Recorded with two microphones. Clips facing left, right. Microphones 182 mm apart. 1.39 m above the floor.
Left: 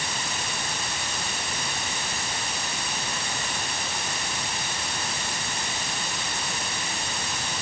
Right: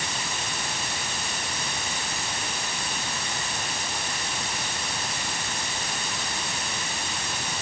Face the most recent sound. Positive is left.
No sound to turn to.